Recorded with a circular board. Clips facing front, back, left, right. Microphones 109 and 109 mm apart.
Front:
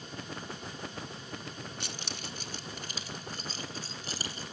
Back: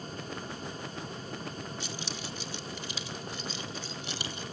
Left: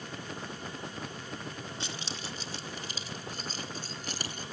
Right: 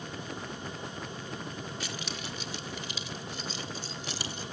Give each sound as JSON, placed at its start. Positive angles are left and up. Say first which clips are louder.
{"t": 1.8, "sound": "keys jangling", "louder": "back 3 dB, right 1 dB", "azimuth_deg": 25, "distance_m": 1.3}